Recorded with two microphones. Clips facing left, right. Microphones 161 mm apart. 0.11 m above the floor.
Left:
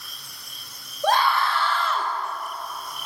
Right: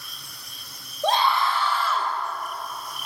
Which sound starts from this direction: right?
A scream, at 1.0 s.